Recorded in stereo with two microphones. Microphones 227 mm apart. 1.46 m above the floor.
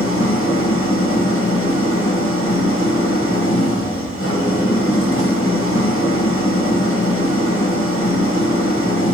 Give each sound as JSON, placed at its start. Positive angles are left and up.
{"t": 0.0, "sound": "an engine running", "side_deg": 65, "distance_m": 1.6}